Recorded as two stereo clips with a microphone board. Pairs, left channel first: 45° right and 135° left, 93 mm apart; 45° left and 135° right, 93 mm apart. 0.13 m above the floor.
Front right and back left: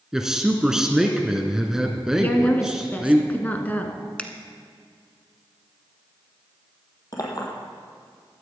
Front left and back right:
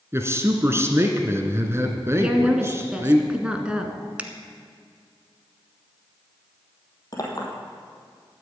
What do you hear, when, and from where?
0.1 s a man speaking: 145° right, 1.6 m
2.2 s a woman speaking: 75° right, 1.6 m
4.2 s a finger snap: 95° right, 1.2 m
7.1 s a clink: straight ahead, 3 m